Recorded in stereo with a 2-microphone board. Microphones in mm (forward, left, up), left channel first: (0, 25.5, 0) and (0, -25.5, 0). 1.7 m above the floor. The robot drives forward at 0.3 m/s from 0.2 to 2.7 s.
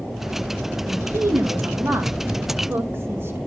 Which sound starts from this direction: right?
A woman speaking, at 0.9 s.